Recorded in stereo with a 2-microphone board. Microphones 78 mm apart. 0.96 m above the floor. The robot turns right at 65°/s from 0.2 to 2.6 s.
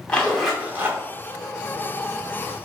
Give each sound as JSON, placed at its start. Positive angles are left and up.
{"t": 0.1, "sound": "a zipper", "azimuth_deg": 170, "distance_m": 1.2}